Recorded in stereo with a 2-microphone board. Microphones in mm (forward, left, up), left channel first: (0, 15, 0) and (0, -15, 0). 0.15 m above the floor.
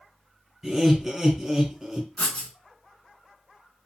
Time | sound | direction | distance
0.6 | laughter | centre (ahead or behind) | 1.6 m
2.2 | writing | 40° left (ahead or behind) | 0.9 m